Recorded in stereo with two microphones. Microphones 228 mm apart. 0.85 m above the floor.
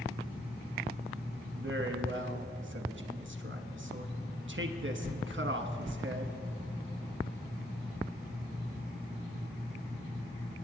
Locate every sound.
1.6 s a man speaking: 55° right (ahead or behind), 1.0 m